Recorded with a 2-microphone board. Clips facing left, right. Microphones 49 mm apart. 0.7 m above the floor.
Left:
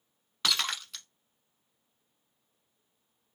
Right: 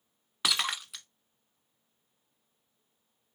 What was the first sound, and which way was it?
Breaking glass, 10° right (ahead or behind).